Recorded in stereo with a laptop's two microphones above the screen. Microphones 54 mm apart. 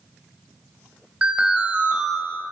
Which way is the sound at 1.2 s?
25° right (ahead or behind).